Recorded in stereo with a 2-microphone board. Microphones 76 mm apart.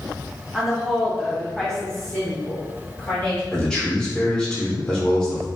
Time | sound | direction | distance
0.5 | a woman speaking | 5° right (ahead or behind) | 0.8 m
3.5 | a man speaking | 10° left (ahead or behind) | 0.8 m